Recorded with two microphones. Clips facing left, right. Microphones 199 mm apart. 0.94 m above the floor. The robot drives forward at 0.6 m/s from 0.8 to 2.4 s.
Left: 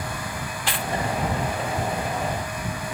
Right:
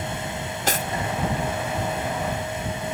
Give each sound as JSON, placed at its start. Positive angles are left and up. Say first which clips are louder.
{"t": 0.7, "sound": "cutlery clinking", "louder": "right 4 dB", "side_deg": -45, "distance_m": 0.6}